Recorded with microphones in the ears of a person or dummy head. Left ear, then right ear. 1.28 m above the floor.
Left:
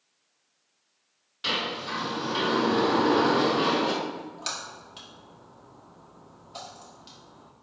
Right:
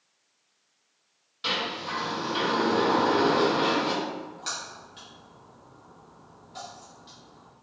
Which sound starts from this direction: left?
A splash, at 4.0 s.